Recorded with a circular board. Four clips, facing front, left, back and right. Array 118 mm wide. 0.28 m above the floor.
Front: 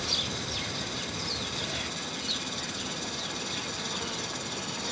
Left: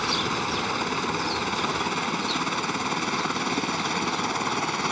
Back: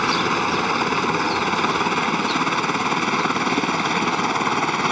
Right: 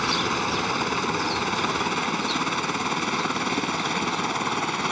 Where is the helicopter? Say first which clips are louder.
Right 2 dB, back 16 dB; 175° right; by 4.9 s straight behind.